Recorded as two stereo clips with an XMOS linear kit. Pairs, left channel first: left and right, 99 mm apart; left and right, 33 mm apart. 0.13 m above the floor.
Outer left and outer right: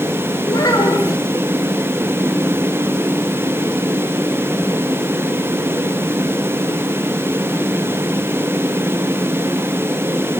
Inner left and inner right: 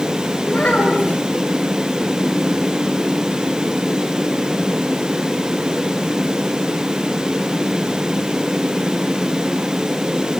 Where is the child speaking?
35° left (ahead or behind), 9.5 m.